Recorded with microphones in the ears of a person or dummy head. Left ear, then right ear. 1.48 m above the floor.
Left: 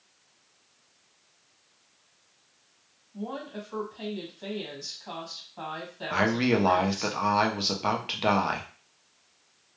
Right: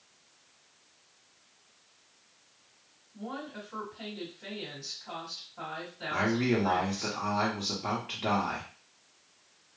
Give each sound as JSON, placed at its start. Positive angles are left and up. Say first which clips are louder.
{"t": 3.1, "sound": "a woman speaking", "louder": "left 3 dB", "side_deg": 85, "distance_m": 1.5}
{"t": 6.1, "sound": "a man speaking", "louder": "left 4 dB", "side_deg": 40, "distance_m": 0.6}